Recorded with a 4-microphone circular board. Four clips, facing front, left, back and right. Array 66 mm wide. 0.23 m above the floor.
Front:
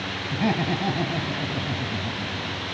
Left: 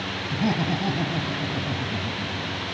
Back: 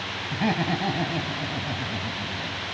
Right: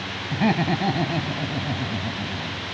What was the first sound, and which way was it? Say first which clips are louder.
Laughter: right 4 dB, front 1 dB; 95° right.